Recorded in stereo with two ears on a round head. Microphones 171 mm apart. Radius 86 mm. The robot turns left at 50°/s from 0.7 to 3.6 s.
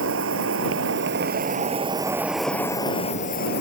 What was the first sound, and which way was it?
An insect, 95° right.